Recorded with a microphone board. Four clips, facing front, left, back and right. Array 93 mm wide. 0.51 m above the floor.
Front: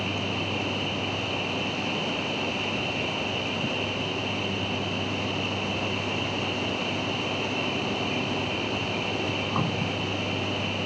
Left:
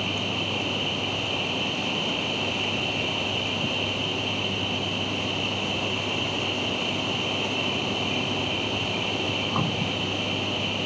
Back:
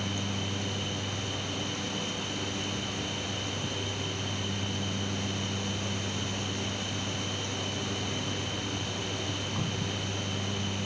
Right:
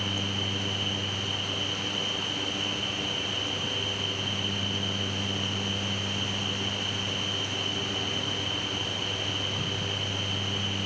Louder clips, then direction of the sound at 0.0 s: Left 3 dB, front 5 dB; 50° left.